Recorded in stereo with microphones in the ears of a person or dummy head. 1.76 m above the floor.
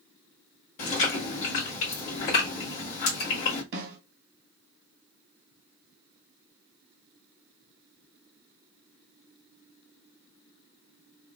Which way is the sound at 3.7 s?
65° right (ahead or behind).